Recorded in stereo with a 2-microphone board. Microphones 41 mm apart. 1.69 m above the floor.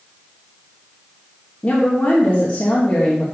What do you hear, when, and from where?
1.6 s a woman speaking: 25° left (ahead or behind), 1.3 m